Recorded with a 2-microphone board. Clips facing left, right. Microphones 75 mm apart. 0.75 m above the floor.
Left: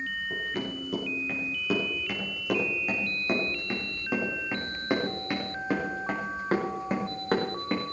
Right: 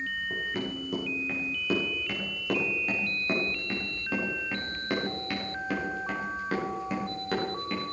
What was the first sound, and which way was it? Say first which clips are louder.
Running footsteps: even; 5° right (ahead or behind).